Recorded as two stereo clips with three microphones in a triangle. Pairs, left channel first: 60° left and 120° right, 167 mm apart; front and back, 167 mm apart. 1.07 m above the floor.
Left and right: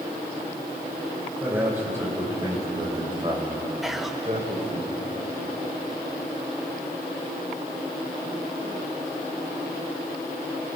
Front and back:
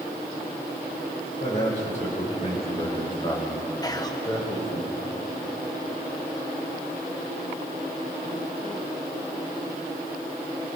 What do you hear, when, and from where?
1.4 s a man speaking: 40° right, 5 m; by 4.8 s 75° right, 6.5 m
3.8 s whispering: 35° right, 0.8 m